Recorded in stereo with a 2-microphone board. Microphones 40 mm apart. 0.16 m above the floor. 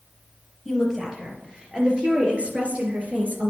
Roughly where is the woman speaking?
Centre.